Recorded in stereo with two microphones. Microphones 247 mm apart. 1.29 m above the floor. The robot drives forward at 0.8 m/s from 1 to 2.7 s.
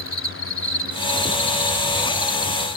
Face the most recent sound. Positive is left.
turn(degrees=-20)  # may be behind; listen again after turning